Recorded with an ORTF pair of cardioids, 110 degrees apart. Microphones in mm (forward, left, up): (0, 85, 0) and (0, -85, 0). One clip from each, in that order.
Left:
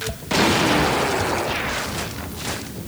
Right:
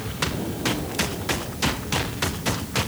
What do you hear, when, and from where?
Only background noise.